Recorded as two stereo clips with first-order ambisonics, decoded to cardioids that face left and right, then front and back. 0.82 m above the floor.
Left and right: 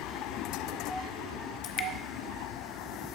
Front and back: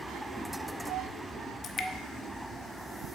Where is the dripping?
55° left, 0.9 m.